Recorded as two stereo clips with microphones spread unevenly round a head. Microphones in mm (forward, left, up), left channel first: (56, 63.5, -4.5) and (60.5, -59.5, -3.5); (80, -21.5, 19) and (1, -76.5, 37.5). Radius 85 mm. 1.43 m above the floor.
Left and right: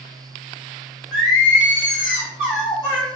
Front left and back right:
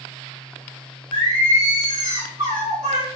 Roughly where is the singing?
Behind.